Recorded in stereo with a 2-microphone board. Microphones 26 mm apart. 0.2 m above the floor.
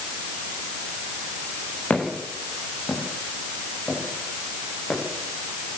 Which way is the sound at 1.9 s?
55° left (ahead or behind).